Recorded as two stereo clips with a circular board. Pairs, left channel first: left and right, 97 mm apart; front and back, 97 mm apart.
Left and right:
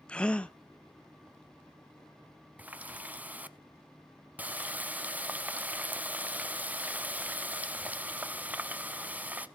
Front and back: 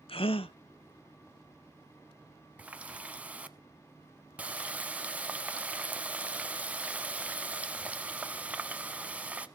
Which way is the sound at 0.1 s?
10° left.